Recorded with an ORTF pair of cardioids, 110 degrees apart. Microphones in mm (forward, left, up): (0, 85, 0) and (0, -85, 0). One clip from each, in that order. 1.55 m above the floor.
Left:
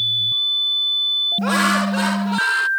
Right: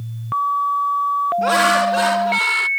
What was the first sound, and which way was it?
Laughter, 10° right.